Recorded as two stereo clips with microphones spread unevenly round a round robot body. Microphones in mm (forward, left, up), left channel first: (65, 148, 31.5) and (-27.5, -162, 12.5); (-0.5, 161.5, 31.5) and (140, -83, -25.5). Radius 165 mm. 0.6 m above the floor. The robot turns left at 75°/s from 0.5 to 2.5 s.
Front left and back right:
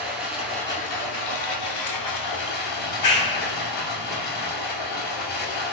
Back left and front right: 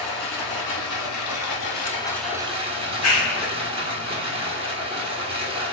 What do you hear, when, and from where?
0.0 s running water: 165° left, 1.4 m; by 5.8 s 15° left, 1.4 m
2.8 s a clap: 85° left, 1.6 m